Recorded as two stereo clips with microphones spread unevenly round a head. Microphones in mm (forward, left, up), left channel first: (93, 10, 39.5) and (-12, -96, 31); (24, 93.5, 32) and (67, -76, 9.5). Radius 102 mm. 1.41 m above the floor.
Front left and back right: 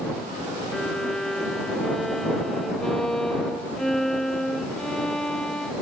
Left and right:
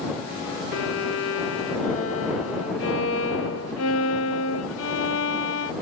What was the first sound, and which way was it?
A violin, 130° left.